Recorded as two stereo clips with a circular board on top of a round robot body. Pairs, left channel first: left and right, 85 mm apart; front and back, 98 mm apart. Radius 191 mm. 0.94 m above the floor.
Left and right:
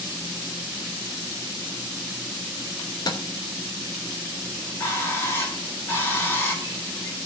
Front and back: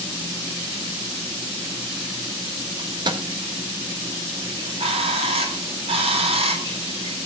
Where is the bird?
155° left, 3.5 m.